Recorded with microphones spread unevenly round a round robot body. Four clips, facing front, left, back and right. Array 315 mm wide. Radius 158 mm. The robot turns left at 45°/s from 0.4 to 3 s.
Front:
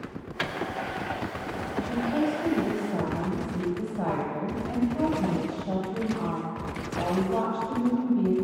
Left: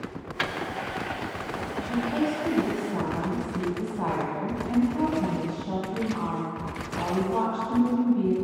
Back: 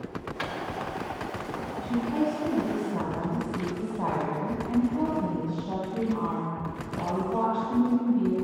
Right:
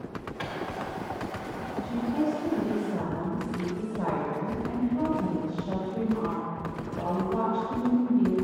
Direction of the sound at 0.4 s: 60° left.